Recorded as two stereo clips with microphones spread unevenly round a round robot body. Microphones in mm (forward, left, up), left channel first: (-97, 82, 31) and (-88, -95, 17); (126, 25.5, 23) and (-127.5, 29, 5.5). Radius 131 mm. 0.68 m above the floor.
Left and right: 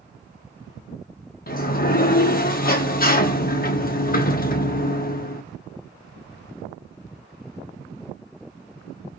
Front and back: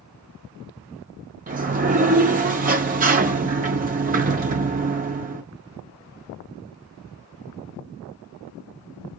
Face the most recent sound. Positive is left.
turn(degrees=125)